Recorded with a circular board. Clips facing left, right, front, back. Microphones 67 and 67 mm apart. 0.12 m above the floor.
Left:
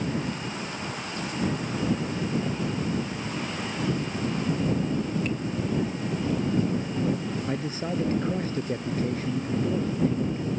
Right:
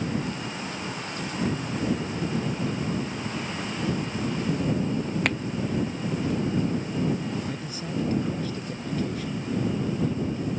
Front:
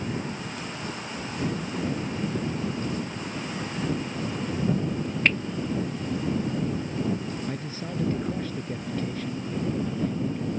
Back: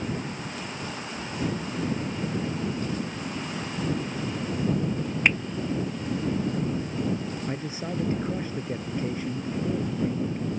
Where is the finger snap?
105° right.